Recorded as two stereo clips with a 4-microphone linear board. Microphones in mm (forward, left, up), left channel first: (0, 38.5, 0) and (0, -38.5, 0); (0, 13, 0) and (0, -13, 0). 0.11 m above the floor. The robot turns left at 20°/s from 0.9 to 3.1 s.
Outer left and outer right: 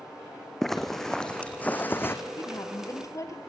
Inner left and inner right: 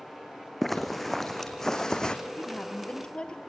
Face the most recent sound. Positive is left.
turn(degrees=40)  # may be behind; listen again after turning